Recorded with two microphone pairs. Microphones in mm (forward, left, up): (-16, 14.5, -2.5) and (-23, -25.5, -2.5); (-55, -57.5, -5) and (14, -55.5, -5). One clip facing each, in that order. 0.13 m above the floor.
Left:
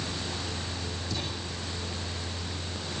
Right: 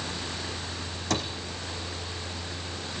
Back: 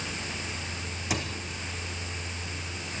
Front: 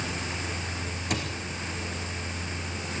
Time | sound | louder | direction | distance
1.1 | a cupboard door | right 8 dB, even | 95° right | 4 m